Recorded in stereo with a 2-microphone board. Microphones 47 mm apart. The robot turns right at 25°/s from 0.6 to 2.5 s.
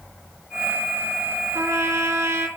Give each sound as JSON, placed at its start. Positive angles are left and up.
{"t": 1.6, "sound": "a trumpet", "side_deg": -75, "distance_m": 3.0}